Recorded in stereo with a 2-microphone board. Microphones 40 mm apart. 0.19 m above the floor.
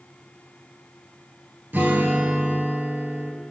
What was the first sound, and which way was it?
A guitar, 50° right (ahead or behind).